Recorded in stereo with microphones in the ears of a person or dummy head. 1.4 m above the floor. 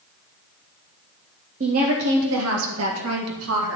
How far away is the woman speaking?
About 1.1 m.